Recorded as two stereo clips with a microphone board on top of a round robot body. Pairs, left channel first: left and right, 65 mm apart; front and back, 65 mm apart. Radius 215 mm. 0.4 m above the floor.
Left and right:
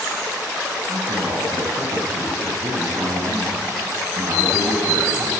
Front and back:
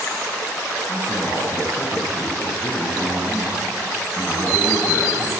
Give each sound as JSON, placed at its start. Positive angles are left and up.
{"t": 0.9, "sound": "a man speaking", "azimuth_deg": -70, "distance_m": 6.5}